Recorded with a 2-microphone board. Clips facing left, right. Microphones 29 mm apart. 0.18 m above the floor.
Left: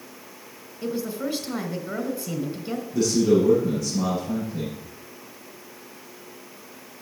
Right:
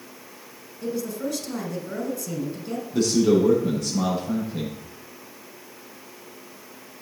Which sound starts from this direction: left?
A woman speaking, at 0.8 s.